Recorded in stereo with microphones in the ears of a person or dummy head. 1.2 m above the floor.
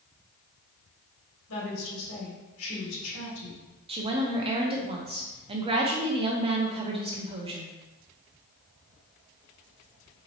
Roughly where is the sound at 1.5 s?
Left.